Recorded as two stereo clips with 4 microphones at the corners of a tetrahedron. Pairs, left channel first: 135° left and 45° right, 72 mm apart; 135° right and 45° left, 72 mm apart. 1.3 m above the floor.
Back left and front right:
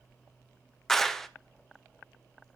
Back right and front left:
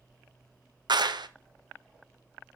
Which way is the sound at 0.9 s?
50° left.